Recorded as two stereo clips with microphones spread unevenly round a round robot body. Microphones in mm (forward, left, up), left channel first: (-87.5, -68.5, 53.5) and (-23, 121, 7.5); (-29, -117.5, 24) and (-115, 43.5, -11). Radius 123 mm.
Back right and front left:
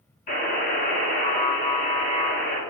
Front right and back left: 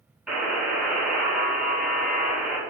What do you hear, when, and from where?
0.3 s a buzzer: 150° right, 1.8 m